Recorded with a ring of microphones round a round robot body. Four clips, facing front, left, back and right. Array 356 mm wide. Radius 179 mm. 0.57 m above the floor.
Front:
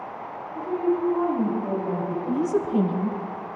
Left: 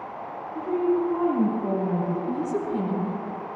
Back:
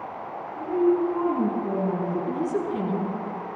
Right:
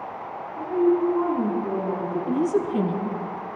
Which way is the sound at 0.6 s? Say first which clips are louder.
Right 3 dB, back 3 dB; 60° left.